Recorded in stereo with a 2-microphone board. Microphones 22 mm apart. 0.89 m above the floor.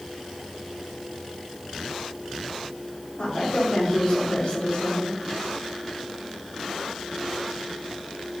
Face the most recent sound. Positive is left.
turn(degrees=75)  # may be behind; listen again after turning